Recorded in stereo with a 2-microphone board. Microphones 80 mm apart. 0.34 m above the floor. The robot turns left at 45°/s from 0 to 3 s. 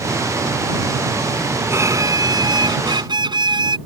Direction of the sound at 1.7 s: 35° right.